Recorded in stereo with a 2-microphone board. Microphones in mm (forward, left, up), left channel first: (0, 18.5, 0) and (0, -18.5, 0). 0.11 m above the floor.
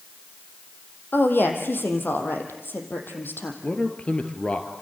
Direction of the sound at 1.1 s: 70° left (ahead or behind).